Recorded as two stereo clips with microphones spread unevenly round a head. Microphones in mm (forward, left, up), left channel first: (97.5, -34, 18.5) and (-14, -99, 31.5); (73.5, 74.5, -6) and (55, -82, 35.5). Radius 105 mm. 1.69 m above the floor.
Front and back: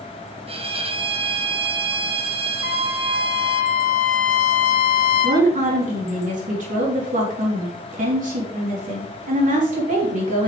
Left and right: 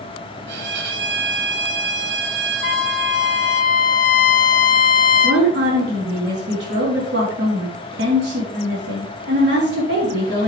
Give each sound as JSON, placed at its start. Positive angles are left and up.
{"t": 0.5, "sound": "a violin", "azimuth_deg": -105, "distance_m": 1.2}
{"t": 2.6, "sound": "a trumpet", "azimuth_deg": 50, "distance_m": 0.8}
{"t": 5.2, "sound": "a woman speaking", "azimuth_deg": -135, "distance_m": 3.5}